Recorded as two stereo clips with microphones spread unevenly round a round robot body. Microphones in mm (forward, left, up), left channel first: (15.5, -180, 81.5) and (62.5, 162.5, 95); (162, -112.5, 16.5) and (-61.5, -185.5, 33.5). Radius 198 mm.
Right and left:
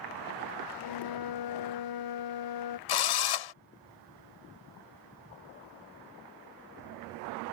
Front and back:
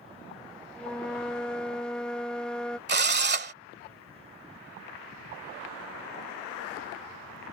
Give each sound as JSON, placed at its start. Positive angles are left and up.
{"t": 0.8, "sound": "a flute", "azimuth_deg": -70}
{"t": 2.9, "sound": "a drill", "azimuth_deg": -115}